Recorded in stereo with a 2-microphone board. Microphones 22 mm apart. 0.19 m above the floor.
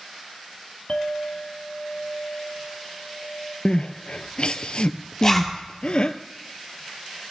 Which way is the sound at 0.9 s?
55° left (ahead or behind).